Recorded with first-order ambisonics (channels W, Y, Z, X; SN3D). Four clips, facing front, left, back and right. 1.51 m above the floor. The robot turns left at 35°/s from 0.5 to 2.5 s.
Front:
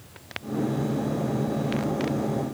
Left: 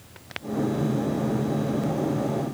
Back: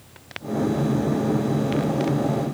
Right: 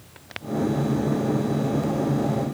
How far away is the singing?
I don't hear singing.